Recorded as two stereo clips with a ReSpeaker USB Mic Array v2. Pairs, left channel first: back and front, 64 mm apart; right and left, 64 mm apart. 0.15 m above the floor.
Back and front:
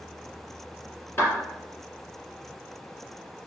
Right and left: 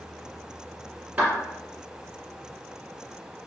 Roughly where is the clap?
Behind left.